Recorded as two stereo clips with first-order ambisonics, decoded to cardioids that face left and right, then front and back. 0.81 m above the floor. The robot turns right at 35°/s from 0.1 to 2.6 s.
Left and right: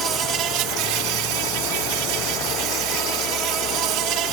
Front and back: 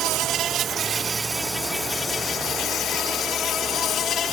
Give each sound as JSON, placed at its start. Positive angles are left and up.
{"t": 0.0, "sound": "an insect", "azimuth_deg": -145}